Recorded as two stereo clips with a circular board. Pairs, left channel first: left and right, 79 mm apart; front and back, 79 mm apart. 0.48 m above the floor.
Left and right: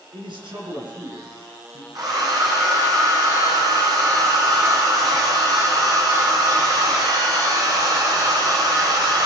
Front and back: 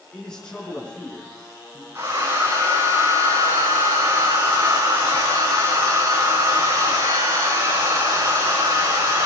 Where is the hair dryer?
125° right, 7.5 m.